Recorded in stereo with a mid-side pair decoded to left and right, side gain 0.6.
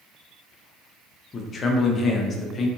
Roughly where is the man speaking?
Ahead left.